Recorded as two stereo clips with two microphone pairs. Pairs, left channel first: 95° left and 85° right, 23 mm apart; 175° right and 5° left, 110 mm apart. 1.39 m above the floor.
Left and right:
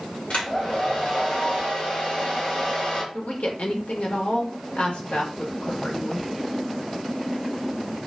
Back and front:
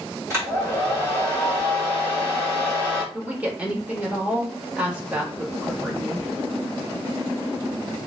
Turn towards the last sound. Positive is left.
turn(degrees=80)